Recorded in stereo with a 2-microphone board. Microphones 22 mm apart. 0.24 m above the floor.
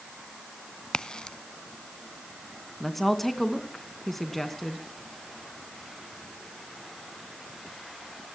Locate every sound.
0.9 s a crack: 35° left (ahead or behind), 0.6 m
2.8 s a woman speaking: 15° left (ahead or behind), 2.5 m